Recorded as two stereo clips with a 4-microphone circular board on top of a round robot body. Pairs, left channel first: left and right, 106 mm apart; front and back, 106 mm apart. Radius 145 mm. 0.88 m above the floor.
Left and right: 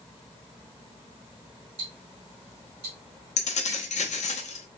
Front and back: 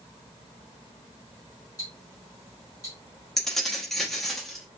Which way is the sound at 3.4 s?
85° left.